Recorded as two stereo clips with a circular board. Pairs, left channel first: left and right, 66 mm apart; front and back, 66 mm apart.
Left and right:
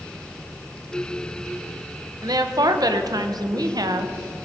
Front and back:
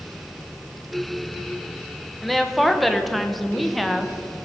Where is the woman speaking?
90° right, 0.8 m.